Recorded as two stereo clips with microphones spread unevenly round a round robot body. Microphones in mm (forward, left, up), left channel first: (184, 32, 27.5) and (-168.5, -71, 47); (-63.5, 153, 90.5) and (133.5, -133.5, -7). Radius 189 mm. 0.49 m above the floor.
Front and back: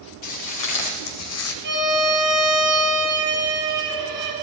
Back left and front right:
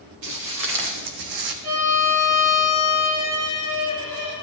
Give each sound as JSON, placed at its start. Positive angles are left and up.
{"t": 0.2, "sound": "footsteps", "azimuth_deg": -15, "distance_m": 3.0}
{"t": 1.6, "sound": "a violin", "azimuth_deg": -105, "distance_m": 6.5}